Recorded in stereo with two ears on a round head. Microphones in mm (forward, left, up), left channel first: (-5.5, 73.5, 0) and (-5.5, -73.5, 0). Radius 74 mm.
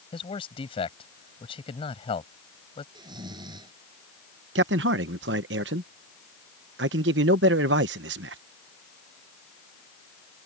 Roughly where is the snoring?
Right.